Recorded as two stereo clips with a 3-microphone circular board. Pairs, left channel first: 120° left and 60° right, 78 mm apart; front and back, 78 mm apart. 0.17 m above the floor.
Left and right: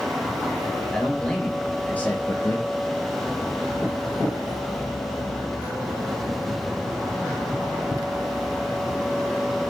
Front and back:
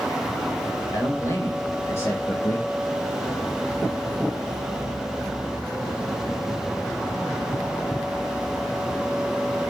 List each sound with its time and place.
0.9 s a man speaking: 35° left, 3.5 m; by 2.7 s 65° left, 3.5 m